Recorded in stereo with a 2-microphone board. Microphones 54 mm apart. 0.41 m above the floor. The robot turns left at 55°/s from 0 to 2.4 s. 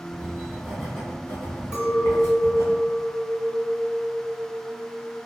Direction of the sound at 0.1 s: 30° right (ahead or behind).